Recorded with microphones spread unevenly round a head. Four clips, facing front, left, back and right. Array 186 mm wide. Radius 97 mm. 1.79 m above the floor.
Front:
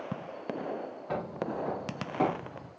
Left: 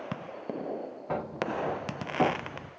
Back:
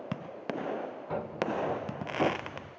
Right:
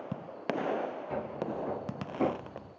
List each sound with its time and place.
1.1 s footsteps: 75° left, 4 m; by 2.7 s 85° left, 3.5 m